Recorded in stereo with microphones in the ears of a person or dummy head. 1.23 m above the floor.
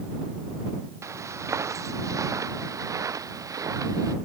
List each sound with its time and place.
1.0 s footsteps: 15° right (ahead or behind); by 4.2 s 25° right (ahead or behind)